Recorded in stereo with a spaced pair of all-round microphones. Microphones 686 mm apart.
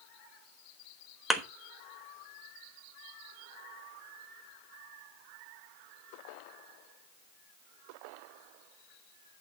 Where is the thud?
Centre (ahead or behind), 1.1 m.